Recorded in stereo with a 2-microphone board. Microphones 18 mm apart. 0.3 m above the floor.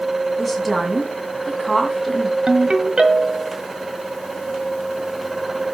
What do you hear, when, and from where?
0.4 s a woman speaking: 5° right (ahead or behind), 2.5 m
2.5 s a ringtone: 45° right (ahead or behind), 1.3 m